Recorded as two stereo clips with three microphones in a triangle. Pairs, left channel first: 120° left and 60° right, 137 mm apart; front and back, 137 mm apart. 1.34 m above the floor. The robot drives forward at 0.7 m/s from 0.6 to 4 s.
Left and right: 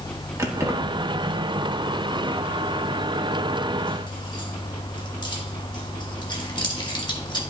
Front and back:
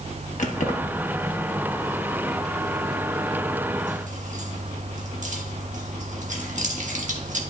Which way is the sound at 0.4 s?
5° left.